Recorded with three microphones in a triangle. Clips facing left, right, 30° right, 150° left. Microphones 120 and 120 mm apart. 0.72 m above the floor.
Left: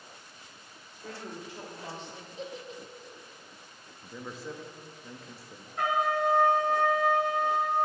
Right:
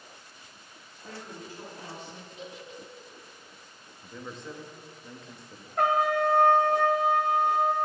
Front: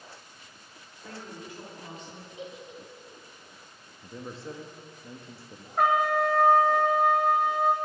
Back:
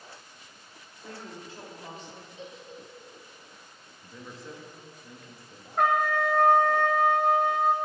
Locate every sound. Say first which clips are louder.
0.9 s a woman speaking: left 2 dB, even; 80° left, 2.5 m; by 2.3 s 105° left, 4 m
2.4 s a giggle: left 4 dB, front 3 dB; 40° left, 0.8 m
4.0 s a man speaking: left 1 dB, front 4 dB; 5° left, 0.7 m
5.8 s a trumpet: right 3 dB, front 1 dB; 120° right, 1.0 m